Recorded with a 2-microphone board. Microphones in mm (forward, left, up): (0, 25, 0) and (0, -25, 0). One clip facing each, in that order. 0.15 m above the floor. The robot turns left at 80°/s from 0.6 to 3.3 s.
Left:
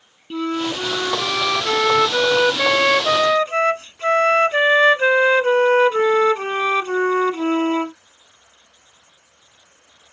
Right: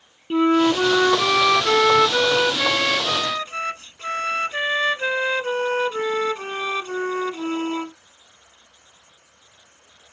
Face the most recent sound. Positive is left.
turn(degrees=80)